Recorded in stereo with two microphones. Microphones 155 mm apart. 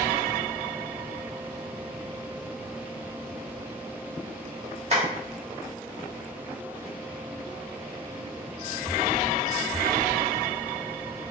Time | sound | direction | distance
4.9 | tapping | 45° right (ahead or behind) | 1.1 m